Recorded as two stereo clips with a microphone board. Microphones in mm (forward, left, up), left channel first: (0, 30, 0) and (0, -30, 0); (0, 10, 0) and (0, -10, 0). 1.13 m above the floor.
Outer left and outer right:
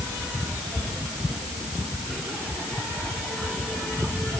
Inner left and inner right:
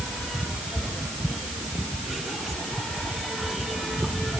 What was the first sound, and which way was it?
Only background noise.